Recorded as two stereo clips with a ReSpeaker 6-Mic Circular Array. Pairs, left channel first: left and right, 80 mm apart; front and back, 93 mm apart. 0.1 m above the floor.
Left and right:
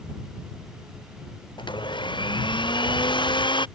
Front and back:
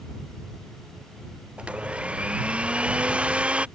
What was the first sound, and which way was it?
A blender, 100° left.